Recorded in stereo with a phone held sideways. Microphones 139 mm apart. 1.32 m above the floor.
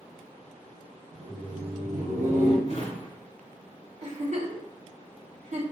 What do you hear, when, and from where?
1.1 s laughter: 20° right (ahead or behind), 0.7 m; by 2.6 s 65° right (ahead or behind), 1.1 m
2.7 s a drawer: 45° left (ahead or behind), 1.2 m
4.0 s a giggle: 55° right (ahead or behind), 0.5 m